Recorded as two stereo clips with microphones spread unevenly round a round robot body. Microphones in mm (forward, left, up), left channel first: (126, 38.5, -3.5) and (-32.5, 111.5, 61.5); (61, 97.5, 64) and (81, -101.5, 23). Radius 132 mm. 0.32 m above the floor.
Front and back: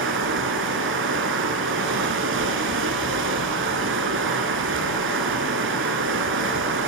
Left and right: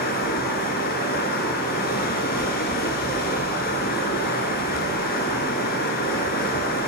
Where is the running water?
150° left, 1.4 m.